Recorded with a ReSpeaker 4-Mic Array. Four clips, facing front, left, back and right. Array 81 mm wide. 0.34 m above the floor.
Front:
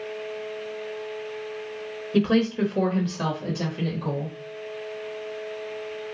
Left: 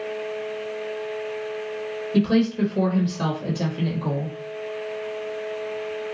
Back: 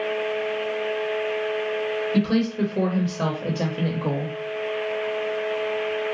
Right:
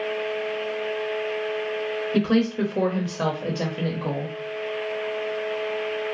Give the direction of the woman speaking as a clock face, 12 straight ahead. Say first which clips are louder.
Left 2 dB, front 3 dB; 1 o'clock.